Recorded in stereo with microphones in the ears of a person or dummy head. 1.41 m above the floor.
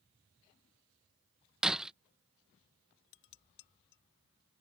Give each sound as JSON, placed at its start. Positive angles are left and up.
{"t": 1.6, "sound": "breaking glass", "side_deg": -5}
{"t": 3.1, "sound": "dishes clattering", "side_deg": 55}